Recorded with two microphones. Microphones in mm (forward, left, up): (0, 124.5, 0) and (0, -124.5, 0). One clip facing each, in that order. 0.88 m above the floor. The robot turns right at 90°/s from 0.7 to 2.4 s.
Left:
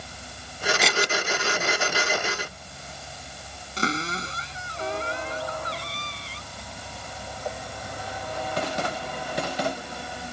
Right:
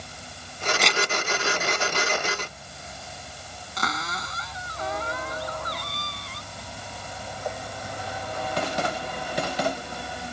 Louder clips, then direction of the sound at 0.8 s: Left 1 dB; centre (ahead or behind).